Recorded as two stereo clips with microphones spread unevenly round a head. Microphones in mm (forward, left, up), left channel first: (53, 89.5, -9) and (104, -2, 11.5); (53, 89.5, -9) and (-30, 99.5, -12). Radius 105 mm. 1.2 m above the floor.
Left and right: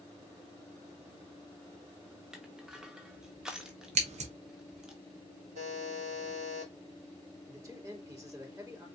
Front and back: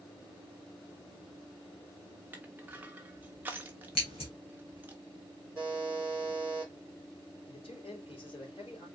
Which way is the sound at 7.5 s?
Straight ahead.